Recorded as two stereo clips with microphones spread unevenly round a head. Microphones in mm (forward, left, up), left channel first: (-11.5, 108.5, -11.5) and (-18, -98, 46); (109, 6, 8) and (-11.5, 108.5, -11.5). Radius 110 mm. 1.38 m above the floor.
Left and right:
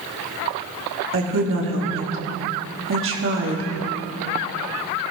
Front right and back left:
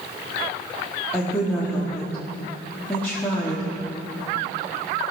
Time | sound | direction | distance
1.1 | a woman speaking | 120° right | 3.5 m